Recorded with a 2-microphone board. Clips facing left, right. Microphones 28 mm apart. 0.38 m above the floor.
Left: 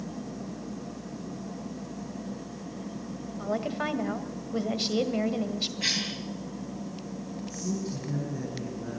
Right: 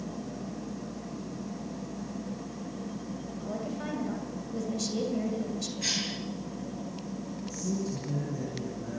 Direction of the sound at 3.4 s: 40° left (ahead or behind).